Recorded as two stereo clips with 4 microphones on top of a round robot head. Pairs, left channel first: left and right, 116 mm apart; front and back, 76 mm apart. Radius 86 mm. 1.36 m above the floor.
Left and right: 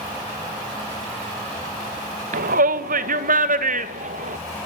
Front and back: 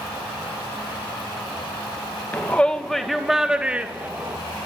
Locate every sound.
2.3 s a shout: 75° right, 1.4 m; by 4.4 s 110° right, 2.0 m